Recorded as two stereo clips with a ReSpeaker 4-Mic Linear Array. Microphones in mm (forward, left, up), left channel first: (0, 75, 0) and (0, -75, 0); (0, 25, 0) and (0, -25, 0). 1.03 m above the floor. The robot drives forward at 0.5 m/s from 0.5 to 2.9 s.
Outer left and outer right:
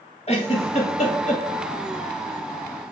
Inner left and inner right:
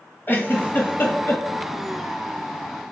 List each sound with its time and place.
0.3 s a giggle: 45° left (ahead or behind), 1.9 m; by 1.4 s 55° left (ahead or behind), 1.6 m